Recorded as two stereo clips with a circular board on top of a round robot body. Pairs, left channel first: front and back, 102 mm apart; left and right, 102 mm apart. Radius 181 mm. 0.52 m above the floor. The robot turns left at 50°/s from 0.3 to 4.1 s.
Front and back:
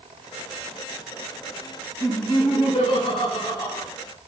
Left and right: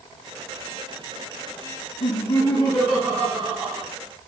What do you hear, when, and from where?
2.0 s laughter: 70° left, 5.5 m; by 3.9 s 25° right, 5.5 m